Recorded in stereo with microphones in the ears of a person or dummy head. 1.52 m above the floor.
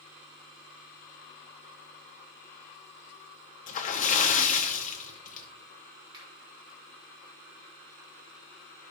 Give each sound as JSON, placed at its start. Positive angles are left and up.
{"t": 3.7, "sound": "a splash", "side_deg": 40, "distance_m": 0.9}
{"t": 6.1, "sound": "a finger snap", "side_deg": -25, "distance_m": 3.5}